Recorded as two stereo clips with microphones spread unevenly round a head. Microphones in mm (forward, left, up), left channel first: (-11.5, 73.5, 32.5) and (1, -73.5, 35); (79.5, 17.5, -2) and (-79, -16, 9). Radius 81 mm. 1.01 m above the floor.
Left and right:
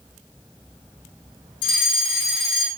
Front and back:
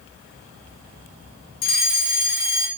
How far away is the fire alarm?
About 5.5 m.